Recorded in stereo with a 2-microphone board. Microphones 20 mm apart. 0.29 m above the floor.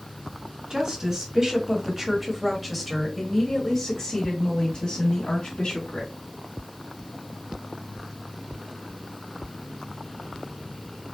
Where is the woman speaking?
40° right (ahead or behind), 1.9 m; by 6.1 s 60° left (ahead or behind), 2 m.